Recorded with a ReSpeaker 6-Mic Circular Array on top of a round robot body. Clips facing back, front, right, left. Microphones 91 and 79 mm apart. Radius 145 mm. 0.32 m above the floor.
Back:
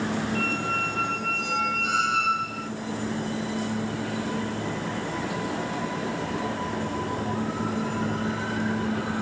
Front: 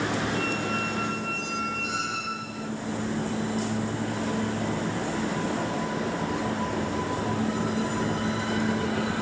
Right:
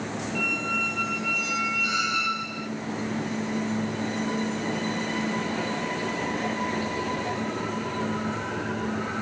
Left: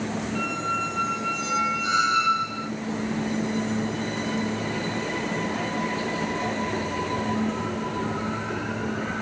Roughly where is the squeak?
Behind left.